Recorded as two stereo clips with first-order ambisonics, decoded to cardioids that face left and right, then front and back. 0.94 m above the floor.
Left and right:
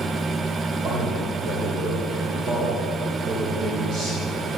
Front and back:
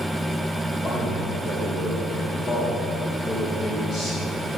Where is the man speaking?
60° right, 3.5 m.